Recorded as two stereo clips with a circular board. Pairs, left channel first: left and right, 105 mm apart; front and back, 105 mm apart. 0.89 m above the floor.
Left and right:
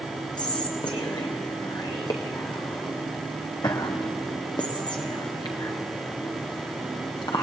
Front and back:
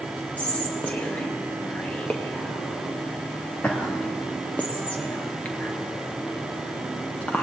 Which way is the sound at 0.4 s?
70° left.